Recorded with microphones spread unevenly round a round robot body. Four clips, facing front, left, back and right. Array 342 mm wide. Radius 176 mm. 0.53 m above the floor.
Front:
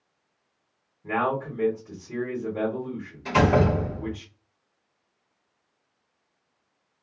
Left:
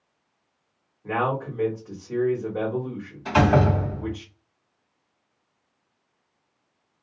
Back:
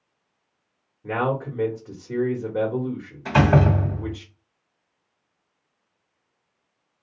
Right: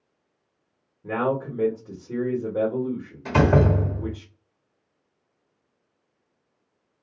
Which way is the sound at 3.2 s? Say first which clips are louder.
Even, back 2 dB; 110° right.